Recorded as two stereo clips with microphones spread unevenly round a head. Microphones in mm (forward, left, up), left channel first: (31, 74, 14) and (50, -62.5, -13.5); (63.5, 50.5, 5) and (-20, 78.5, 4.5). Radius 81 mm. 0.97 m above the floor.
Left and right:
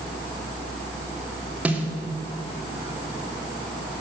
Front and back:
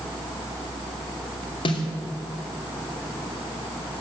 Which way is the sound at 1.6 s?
5° right.